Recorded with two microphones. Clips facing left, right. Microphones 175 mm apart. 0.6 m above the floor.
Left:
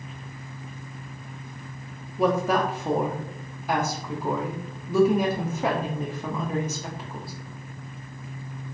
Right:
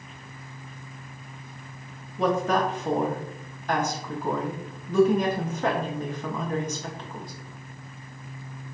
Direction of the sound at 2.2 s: 10° left (ahead or behind).